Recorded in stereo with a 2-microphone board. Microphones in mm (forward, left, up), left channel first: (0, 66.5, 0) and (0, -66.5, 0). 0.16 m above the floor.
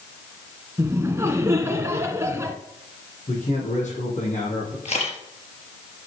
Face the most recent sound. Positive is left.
turn(degrees=55)  # may be behind; listen again after turning